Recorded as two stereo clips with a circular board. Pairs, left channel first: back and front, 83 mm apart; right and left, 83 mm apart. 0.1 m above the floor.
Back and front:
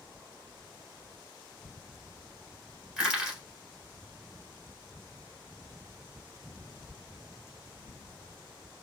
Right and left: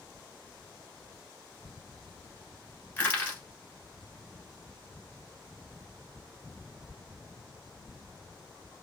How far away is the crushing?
About 1.4 m.